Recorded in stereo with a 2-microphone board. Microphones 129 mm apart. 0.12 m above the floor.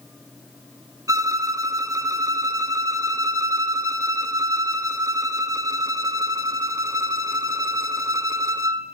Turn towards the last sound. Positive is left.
turn(degrees=-25)  # may be behind; listen again after turning